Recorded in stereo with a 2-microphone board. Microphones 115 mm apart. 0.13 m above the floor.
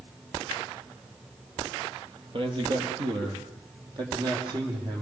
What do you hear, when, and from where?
2.3 s a man speaking: 45° right (ahead or behind), 4 m; by 5.0 s 40° right (ahead or behind), 7 m